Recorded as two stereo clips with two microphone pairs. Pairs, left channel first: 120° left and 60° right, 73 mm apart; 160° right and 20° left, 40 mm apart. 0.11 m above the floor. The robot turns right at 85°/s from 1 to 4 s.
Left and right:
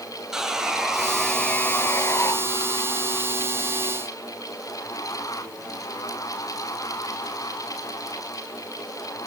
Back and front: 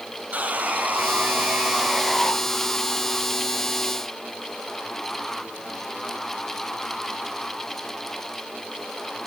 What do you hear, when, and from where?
0.3 s sawing: 20° left, 0.8 m; by 2.3 s 130° left, 0.8 m